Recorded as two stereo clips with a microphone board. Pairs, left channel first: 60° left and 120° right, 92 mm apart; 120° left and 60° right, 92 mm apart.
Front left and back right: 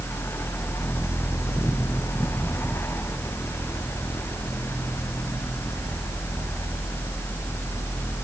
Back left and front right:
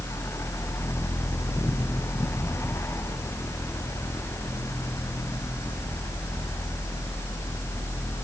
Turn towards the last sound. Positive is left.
No sound to turn to.